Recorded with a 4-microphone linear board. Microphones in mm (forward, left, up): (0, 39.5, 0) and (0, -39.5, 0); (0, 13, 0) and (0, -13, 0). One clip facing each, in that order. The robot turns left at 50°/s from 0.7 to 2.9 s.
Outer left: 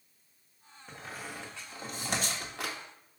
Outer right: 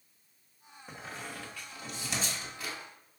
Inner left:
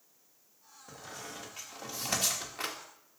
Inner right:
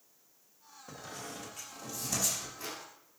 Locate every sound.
0.9 s a squeak: 10° right (ahead or behind), 1.2 m; by 2.8 s 85° left, 1.2 m